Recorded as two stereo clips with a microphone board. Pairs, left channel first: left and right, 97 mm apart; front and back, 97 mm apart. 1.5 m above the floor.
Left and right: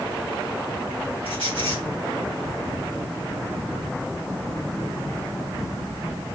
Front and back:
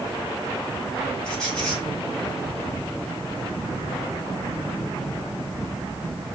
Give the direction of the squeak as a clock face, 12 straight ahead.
9 o'clock.